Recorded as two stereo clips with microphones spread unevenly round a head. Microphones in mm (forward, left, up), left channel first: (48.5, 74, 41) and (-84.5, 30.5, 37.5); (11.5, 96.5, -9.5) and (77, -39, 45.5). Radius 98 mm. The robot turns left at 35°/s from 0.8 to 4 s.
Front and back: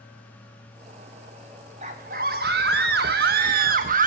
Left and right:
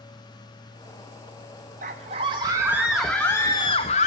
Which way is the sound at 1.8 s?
105° right.